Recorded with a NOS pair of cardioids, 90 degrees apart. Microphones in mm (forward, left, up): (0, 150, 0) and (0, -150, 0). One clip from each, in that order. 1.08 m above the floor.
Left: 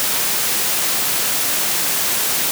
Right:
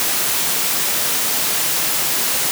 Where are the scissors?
I don't hear scissors.